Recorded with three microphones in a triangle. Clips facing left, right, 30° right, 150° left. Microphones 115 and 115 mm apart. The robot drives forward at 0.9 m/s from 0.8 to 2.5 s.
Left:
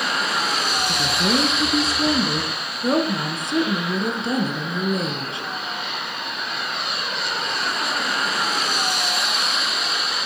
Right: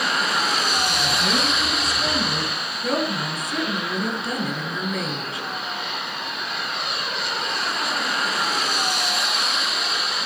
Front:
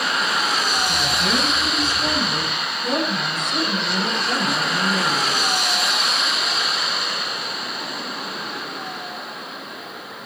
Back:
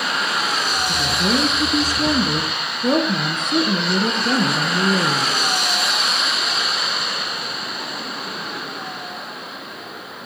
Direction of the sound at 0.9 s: 90° left.